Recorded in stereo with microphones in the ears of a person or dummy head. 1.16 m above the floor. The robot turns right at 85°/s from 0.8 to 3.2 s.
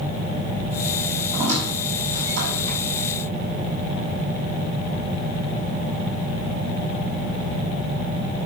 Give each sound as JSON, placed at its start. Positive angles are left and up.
{"t": 1.3, "sound": "a squeak", "side_deg": -30, "distance_m": 7.0}